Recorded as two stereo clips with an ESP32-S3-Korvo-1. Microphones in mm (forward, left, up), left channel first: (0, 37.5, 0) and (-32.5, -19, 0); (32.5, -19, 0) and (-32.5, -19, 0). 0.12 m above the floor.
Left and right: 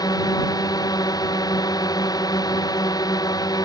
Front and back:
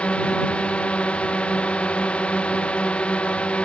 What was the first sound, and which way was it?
A drone, 75° left.